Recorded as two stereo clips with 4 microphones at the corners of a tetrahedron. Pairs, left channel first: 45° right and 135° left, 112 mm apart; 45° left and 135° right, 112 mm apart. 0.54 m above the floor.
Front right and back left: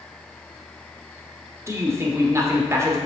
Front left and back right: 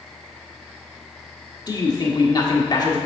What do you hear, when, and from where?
1.7 s a man speaking: 80° left, 1.3 m